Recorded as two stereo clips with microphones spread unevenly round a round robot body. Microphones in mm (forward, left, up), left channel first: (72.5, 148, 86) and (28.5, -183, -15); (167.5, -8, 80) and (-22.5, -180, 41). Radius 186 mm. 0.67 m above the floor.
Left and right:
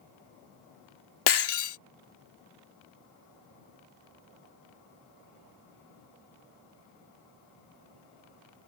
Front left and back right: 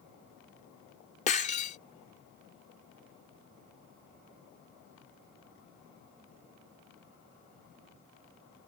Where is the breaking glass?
115° left.